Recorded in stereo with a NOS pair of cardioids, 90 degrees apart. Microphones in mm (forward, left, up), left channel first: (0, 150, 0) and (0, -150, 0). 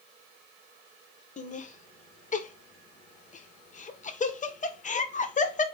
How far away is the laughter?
About 0.7 m.